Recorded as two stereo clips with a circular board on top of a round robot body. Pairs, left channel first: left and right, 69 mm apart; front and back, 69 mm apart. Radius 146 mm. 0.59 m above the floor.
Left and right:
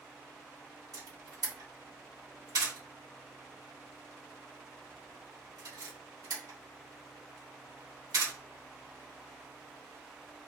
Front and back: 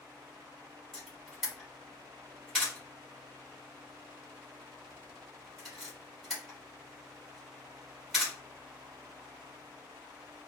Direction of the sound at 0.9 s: 95° right.